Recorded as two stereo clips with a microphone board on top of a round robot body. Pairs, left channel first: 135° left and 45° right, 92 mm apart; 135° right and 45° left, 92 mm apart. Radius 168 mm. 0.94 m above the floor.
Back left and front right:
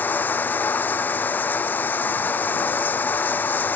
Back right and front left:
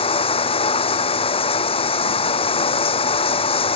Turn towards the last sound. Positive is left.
turn(degrees=-155)